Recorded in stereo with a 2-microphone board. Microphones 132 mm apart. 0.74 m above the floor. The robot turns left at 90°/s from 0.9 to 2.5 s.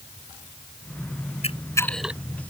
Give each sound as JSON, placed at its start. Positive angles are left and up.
{"t": 1.4, "sound": "a camera shutter", "side_deg": 50}